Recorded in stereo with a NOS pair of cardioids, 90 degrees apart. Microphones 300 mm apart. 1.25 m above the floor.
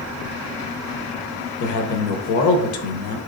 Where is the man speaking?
70° left, 0.8 m.